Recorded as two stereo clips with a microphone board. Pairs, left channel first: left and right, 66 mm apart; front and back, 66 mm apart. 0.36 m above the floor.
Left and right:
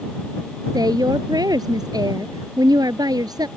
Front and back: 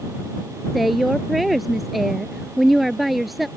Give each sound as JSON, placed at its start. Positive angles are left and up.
{"t": 0.7, "sound": "a woman speaking", "azimuth_deg": -90}